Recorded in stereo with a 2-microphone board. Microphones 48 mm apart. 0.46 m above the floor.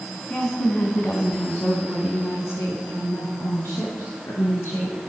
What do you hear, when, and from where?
0.3 s a woman speaking: 25° left (ahead or behind), 3.5 m; by 5.0 s 70° left (ahead or behind), 7 m